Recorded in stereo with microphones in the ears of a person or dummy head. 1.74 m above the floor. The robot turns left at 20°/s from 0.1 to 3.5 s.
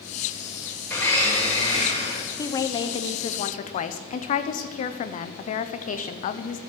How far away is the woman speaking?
About 0.9 m.